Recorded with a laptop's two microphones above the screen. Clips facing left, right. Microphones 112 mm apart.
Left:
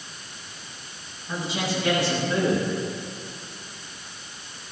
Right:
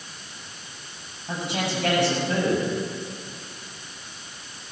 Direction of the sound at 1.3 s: 65° right (ahead or behind).